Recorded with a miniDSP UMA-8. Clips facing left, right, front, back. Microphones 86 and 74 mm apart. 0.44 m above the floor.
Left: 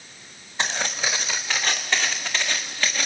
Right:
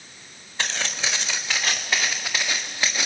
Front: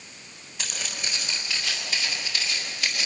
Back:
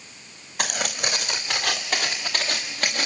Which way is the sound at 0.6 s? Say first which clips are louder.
Left 2 dB, back 8 dB; 165° left.